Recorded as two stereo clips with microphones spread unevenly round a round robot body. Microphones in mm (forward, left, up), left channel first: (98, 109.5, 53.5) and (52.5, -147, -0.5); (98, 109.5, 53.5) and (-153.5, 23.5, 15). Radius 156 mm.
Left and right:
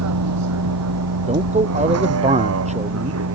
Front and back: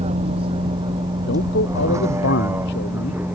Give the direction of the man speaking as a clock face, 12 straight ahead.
1 o'clock.